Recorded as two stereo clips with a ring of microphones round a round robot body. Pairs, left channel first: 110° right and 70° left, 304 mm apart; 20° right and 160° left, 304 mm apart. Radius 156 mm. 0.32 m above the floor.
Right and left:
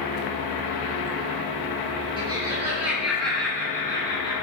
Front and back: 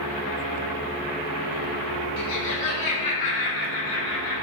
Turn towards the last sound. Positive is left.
turn(degrees=-40)